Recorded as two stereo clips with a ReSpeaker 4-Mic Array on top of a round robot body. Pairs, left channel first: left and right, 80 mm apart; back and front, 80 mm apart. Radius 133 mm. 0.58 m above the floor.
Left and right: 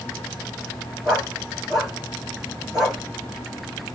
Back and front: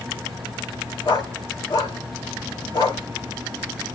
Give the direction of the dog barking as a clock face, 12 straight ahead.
6 o'clock.